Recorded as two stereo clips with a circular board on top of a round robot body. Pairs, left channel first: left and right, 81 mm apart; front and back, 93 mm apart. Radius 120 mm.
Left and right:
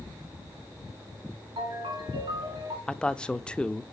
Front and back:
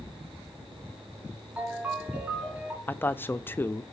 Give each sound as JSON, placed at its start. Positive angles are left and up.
{"t": 1.6, "sound": "a ringtone", "azimuth_deg": -105, "distance_m": 3.0}
{"t": 2.9, "sound": "a man speaking", "azimuth_deg": 25, "distance_m": 0.6}